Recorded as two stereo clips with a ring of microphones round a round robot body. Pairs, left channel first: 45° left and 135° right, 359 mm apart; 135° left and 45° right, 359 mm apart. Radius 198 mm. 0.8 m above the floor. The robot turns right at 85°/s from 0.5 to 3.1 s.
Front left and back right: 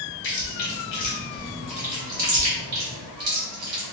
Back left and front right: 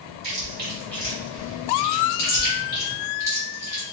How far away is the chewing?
About 3 m.